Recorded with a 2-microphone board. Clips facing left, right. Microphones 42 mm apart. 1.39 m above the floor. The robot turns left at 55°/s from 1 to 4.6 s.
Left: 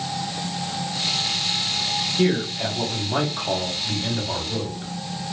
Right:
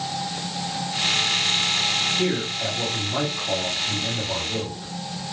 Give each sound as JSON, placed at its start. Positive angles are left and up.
{"t": 2.2, "sound": "a man speaking", "azimuth_deg": 165, "distance_m": 1.2}